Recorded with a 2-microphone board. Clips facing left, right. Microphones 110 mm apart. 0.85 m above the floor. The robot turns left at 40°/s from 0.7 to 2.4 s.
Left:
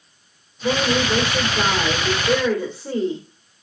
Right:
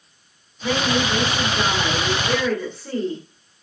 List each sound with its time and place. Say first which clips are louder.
0.6 s a woman speaking: left 1 dB; 25° left (ahead or behind), 1.0 m; by 3.2 s 20° left (ahead or behind), 1.0 m